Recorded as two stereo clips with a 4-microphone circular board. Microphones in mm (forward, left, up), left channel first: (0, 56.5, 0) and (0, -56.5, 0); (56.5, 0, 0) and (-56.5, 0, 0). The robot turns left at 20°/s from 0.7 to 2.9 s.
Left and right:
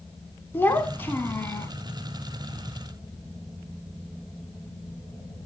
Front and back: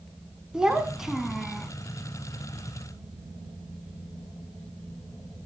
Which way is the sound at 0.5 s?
110° left.